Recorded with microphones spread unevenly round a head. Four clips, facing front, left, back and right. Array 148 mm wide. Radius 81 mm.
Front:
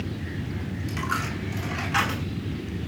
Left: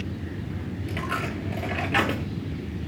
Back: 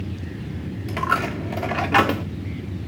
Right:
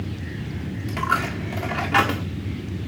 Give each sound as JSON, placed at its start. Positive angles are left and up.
{"t": 0.9, "sound": "a dropped coin", "azimuth_deg": 175, "distance_m": 1.4}